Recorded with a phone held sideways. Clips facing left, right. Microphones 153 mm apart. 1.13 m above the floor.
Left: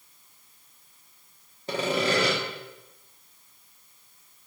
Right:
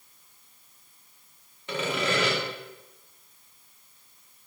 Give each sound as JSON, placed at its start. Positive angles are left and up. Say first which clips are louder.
{"t": 1.7, "sound": "sawing", "louder": "left 3 dB", "side_deg": 35, "distance_m": 0.9}